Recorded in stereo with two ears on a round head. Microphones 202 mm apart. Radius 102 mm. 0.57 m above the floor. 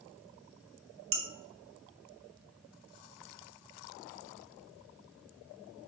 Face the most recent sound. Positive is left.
turn(degrees=-60)  # may be behind; listen again after turning